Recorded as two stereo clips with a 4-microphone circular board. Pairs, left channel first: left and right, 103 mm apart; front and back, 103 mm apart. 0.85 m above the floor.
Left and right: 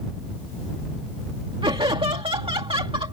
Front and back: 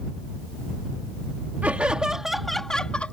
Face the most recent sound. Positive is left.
turn(degrees=-75)